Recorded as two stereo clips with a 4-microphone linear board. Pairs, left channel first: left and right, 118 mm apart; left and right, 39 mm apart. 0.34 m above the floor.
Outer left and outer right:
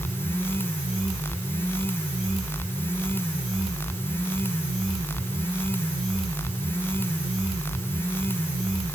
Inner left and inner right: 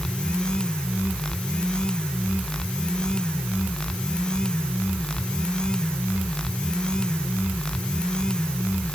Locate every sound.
Only background noise.